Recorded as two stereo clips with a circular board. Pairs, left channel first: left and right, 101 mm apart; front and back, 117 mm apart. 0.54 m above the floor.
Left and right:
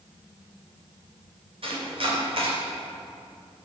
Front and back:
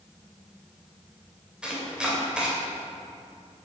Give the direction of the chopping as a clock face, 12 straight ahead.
3 o'clock.